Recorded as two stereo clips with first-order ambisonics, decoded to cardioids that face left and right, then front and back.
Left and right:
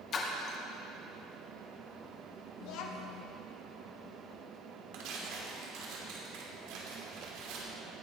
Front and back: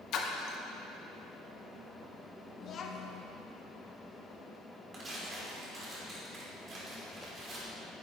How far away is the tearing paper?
About 3 m.